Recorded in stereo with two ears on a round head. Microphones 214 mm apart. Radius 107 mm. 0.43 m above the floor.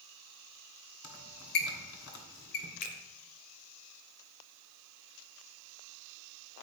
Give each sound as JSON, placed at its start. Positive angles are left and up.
{"t": 1.0, "sound": "a squeak", "side_deg": 60, "distance_m": 1.4}
{"t": 2.8, "sound": "a finger snap", "side_deg": 40, "distance_m": 1.0}